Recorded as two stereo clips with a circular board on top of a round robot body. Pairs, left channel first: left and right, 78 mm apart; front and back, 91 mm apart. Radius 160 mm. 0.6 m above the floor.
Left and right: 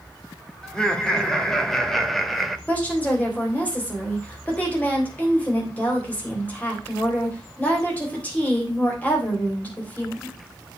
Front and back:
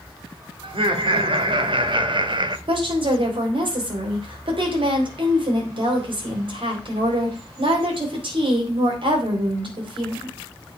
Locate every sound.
0.6 s laughter: 170° left, 2 m; by 2.6 s straight behind, 1.1 m
2.7 s a woman speaking: 160° left, 3.5 m